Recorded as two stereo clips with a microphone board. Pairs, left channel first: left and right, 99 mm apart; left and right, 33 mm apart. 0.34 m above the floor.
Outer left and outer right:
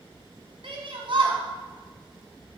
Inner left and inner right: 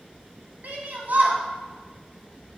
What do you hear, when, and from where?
0.6 s a shout: 65° right (ahead or behind), 1.9 m